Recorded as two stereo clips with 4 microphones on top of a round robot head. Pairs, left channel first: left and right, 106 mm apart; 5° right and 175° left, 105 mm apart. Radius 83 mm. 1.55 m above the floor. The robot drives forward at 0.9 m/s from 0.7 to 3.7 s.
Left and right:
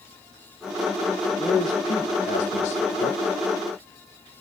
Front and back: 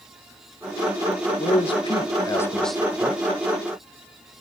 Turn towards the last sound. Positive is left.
turn(degrees=145)